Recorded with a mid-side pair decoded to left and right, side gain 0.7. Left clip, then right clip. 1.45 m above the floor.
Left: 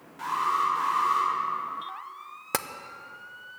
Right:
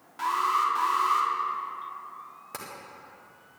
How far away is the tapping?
About 0.8 m.